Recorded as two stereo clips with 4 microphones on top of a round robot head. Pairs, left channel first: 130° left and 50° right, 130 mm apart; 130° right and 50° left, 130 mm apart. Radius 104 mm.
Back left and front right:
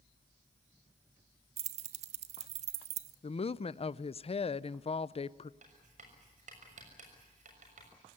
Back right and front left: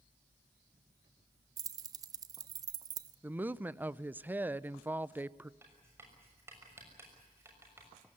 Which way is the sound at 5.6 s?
20° right.